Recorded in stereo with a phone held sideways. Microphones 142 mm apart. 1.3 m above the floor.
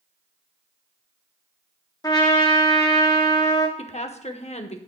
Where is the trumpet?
25° left (ahead or behind), 1.6 m.